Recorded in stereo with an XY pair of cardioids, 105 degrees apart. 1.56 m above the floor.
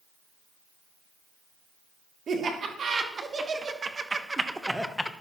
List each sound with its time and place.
2.3 s laughter: 50° right, 3 m; by 5.1 s 15° left, 1.0 m